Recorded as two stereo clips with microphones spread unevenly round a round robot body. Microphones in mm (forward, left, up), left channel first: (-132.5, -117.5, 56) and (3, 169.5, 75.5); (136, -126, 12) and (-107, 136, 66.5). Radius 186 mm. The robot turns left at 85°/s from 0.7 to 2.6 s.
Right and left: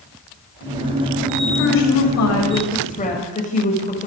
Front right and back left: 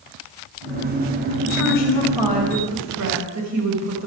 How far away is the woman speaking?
About 5 m.